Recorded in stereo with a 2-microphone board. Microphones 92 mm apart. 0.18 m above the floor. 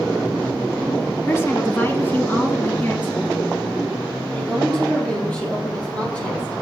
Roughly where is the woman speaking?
Left.